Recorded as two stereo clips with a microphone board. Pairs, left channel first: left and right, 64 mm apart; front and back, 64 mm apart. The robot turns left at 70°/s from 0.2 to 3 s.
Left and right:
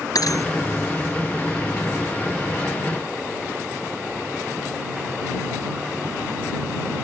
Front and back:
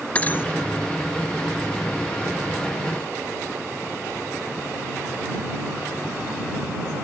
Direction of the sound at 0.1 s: 65° left.